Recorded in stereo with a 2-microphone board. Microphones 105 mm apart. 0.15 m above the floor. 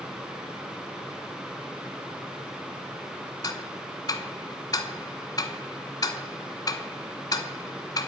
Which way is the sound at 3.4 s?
40° left (ahead or behind).